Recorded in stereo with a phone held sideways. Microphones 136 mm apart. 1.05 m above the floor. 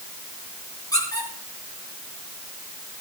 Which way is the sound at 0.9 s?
25° left (ahead or behind).